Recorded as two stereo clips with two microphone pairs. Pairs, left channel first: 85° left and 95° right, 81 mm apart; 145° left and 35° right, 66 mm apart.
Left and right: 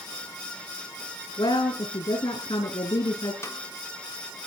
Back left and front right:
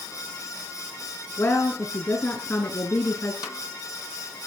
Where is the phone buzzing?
No phone buzzing in this recording.